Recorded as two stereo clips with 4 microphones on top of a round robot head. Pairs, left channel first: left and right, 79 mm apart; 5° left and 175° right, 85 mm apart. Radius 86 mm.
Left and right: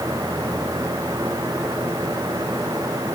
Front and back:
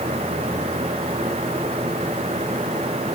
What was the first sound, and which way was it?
Only background noise.